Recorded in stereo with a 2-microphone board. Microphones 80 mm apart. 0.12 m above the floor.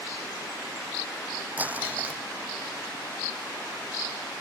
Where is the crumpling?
20° right (ahead or behind).